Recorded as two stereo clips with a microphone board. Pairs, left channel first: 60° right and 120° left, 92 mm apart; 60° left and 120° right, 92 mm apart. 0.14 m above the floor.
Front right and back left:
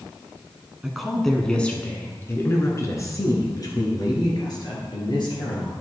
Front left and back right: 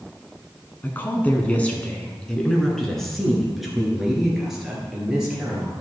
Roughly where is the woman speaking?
Ahead left.